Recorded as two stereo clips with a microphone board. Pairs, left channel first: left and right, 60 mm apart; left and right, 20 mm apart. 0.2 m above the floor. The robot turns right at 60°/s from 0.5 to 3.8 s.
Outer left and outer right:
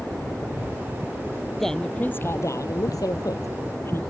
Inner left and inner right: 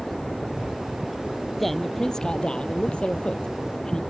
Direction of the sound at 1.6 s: 5° left.